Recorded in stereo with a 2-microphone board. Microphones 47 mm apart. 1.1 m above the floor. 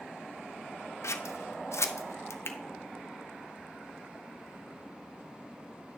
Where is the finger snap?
60° left (ahead or behind), 0.7 m.